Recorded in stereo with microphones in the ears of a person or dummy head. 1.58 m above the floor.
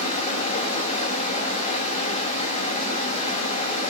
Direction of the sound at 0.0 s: 30° left (ahead or behind).